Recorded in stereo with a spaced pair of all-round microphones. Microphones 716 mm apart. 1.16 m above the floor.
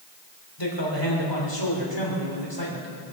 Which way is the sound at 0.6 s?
35° left (ahead or behind).